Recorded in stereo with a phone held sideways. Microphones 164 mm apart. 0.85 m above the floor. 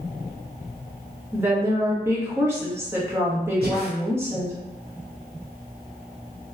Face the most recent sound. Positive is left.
turn(degrees=-65)  # may be behind; listen again after turning